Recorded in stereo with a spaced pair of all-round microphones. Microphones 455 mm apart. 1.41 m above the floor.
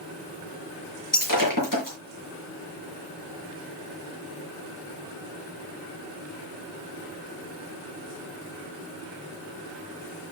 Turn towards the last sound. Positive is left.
turn(degrees=45)  # may be behind; listen again after turning